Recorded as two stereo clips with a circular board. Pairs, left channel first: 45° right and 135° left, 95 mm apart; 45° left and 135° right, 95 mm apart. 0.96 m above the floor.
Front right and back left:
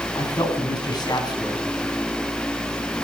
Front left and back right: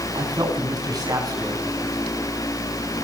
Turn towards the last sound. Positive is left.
turn(degrees=-90)